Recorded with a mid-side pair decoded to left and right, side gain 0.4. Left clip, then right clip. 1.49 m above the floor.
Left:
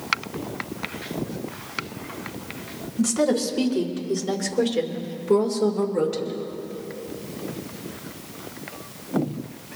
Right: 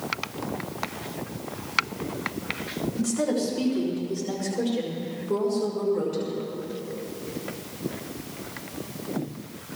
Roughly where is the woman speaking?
Ahead left.